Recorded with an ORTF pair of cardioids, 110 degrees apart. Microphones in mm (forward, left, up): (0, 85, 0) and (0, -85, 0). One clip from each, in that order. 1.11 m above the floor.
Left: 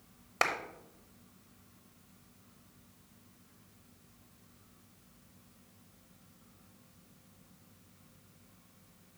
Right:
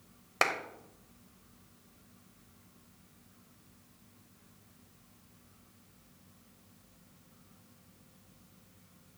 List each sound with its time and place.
0.4 s a clap: 5° right, 0.8 m